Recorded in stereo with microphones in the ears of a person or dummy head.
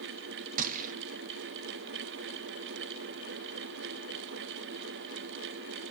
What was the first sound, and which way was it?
A gunshot, 45° right (ahead or behind).